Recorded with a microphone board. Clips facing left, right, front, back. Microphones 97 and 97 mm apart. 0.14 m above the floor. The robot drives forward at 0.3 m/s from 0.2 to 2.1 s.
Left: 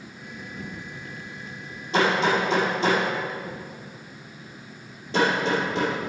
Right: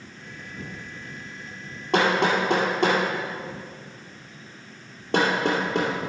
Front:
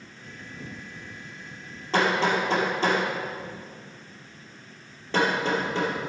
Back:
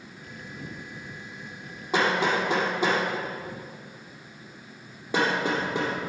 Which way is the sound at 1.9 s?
105° right.